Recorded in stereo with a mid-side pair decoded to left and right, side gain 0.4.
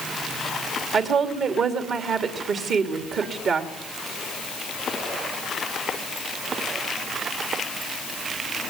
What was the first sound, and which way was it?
A woman speaking, 70° right.